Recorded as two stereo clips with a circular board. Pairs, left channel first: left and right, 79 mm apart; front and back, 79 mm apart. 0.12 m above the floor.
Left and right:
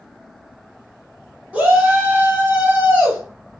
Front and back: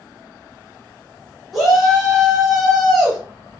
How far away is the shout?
About 1.4 m.